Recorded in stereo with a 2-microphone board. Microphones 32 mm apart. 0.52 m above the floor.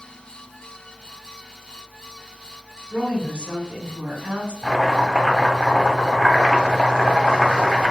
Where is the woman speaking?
50° right (ahead or behind), 2 m.